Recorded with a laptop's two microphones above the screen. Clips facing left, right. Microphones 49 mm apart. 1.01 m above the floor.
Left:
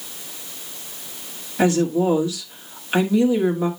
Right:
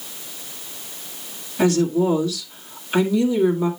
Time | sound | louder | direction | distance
1.6 | a woman speaking | even | 30° left (ahead or behind) | 2 m